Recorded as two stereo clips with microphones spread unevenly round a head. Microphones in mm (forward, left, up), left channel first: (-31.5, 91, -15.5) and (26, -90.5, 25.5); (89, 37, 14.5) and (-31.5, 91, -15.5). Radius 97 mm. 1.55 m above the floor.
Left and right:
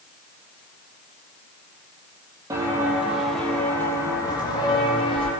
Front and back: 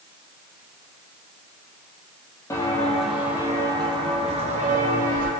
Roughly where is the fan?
I don't hear a fan.